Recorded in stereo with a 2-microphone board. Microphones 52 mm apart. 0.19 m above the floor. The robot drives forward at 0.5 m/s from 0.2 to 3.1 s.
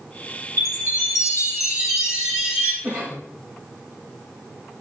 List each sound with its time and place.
0.6 s a chime: 85° left, 3.5 m; by 2.7 s 70° left (ahead or behind), 3.5 m
2.8 s a cough: 20° right (ahead or behind), 3.5 m